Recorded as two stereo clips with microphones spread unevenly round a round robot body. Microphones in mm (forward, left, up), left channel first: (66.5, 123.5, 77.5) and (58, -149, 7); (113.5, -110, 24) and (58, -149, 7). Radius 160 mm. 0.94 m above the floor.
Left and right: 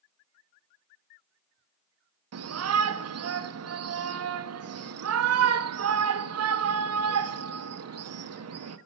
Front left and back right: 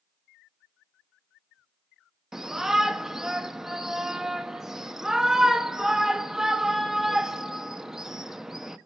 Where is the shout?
65° right, 1.0 m.